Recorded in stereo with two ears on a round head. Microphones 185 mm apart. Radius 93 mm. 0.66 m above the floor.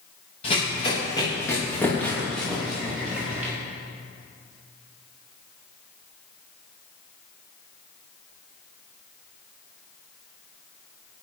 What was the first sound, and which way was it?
Running footsteps, 30° left (ahead or behind).